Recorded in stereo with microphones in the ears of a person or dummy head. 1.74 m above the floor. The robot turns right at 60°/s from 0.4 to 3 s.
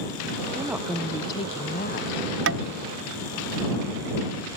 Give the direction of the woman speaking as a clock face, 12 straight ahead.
1 o'clock.